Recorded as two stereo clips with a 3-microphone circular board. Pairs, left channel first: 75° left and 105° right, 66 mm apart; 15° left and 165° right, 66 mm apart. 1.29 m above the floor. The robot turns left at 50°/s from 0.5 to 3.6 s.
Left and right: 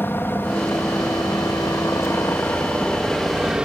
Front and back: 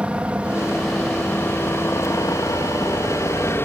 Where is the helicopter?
125° left; by 3.7 s 30° right.